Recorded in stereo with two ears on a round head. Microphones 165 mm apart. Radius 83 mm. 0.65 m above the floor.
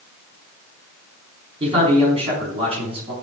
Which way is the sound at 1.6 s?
30° right (ahead or behind).